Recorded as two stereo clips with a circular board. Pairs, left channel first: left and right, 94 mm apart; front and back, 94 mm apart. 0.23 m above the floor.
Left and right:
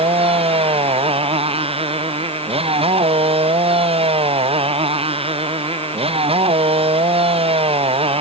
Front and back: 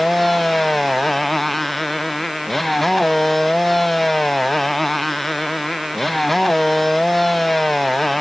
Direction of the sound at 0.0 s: 90° right.